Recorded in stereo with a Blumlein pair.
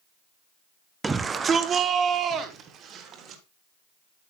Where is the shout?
10° right, 0.5 m; by 3.4 s 30° right, 1.7 m.